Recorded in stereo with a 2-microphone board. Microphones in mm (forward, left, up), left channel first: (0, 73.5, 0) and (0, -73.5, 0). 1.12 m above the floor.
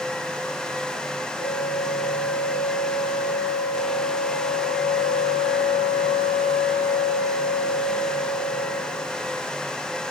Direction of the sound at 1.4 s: 75° left (ahead or behind).